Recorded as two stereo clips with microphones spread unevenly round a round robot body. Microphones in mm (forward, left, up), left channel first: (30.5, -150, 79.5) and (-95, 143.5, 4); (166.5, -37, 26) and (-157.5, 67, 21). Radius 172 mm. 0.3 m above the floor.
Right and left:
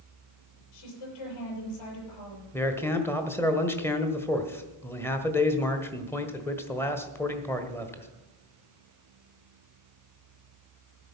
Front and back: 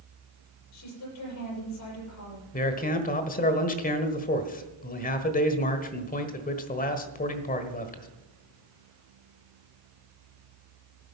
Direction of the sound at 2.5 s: 30° left.